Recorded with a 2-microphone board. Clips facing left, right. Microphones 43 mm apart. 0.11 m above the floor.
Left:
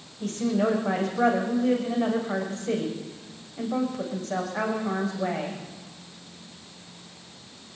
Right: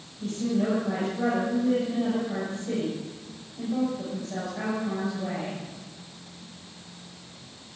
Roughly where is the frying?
No frying in this recording.